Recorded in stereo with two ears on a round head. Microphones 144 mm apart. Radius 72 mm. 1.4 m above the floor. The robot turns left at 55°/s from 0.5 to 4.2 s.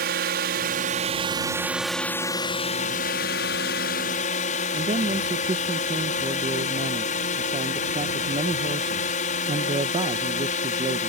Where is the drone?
105° right; by 11.1 s 55° left.